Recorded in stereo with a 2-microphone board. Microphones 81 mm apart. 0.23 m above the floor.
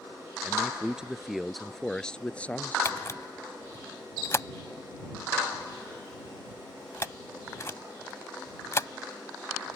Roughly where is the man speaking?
Centre.